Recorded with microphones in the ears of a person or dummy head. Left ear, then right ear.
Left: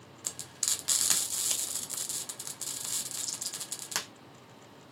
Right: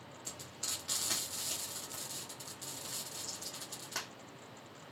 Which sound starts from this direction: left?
Frying, at 0.2 s.